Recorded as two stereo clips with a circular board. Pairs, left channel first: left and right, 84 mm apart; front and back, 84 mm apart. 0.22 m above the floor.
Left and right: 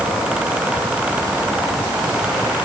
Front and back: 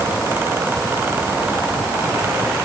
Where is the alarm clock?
I don't hear an alarm clock.